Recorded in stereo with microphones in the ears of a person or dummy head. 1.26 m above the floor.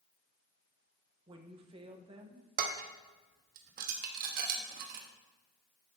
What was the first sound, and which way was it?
A woman speaking, 25° right (ahead or behind).